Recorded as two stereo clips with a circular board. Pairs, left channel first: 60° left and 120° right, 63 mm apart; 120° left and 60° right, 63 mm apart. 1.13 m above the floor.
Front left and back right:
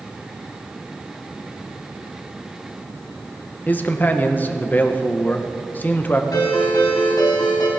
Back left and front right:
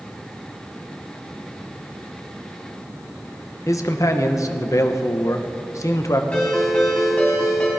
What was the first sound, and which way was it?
A man speaking, 115° left.